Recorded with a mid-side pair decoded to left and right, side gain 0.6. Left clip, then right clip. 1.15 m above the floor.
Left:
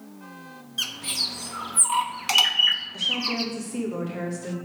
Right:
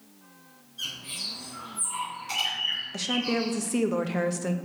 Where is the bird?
70° left, 1.0 m.